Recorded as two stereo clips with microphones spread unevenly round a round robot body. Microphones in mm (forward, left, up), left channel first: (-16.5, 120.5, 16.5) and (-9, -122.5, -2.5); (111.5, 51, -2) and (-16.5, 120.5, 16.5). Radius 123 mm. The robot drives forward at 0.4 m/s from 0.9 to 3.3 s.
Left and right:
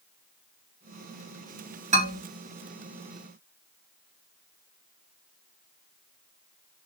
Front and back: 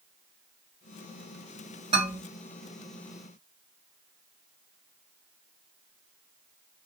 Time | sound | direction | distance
1.9 | a man speaking | 140° right | 1.5 m